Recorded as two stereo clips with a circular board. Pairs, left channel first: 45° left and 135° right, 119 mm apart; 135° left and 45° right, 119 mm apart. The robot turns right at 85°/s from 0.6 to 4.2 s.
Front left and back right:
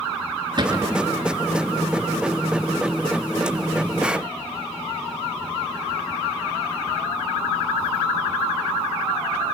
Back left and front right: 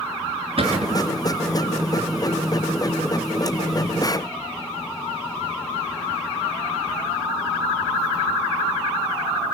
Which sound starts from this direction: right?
A cupboard door, at 0.6 s.